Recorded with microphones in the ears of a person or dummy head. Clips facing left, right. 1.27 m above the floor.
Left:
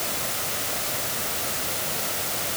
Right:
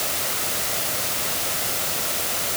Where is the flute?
No flute in this recording.